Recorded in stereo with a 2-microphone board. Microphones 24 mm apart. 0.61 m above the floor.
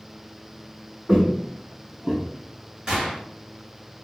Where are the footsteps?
35° right (ahead or behind), 1.3 m; by 2.2 s 30° right (ahead or behind), 0.7 m.